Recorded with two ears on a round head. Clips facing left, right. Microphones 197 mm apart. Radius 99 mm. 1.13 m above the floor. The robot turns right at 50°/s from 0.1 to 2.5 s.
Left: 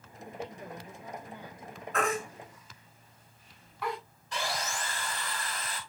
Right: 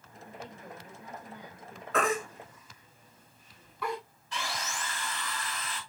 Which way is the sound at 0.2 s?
135° left.